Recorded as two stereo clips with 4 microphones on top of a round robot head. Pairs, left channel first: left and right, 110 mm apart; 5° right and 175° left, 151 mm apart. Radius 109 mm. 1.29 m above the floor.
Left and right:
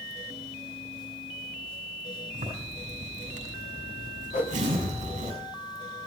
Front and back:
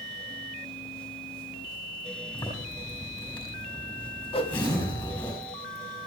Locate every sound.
2.3 s a zipper: 70° right, 5.5 m
4.3 s a whoosh: 50° left, 1.6 m